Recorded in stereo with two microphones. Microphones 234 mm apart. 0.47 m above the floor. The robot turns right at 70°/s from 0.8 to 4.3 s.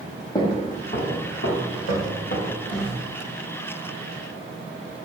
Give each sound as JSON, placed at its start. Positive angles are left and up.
{"t": 0.3, "sound": "footsteps", "side_deg": 15, "distance_m": 1.1}